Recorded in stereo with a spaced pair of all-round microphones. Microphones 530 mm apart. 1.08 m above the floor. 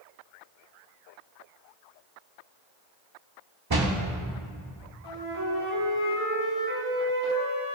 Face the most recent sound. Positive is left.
turn(degrees=-45)  # may be behind; listen again after turning